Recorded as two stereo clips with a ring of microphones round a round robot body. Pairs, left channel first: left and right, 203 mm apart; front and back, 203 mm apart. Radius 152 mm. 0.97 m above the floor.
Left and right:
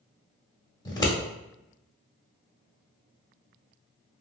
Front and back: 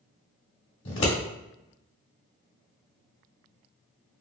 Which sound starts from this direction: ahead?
Scissors, at 0.8 s.